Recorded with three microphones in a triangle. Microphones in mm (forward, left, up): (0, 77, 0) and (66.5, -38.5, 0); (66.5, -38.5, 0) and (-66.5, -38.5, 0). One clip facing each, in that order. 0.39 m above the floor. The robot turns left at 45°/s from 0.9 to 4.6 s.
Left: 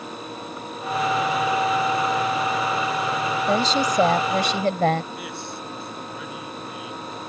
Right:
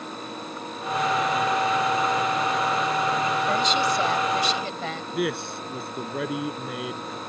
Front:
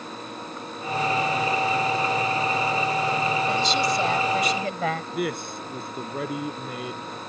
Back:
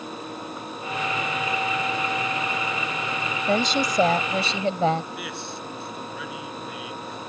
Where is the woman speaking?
170° left; by 5.0 s 120° left.